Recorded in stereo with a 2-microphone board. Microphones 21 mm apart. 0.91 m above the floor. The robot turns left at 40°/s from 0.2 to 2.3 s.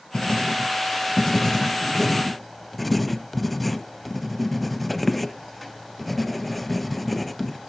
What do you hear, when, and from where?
0.1 s writing: 40° left (ahead or behind), 0.9 m; by 7.7 s 5° left (ahead or behind), 0.9 m